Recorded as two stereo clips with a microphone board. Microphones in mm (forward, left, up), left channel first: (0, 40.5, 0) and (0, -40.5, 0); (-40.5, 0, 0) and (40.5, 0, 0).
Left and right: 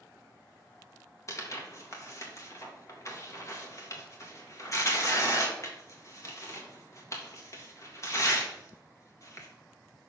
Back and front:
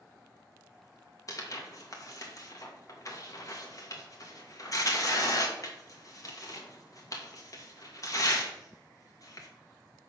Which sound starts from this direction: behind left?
Tearing paper, at 1.3 s.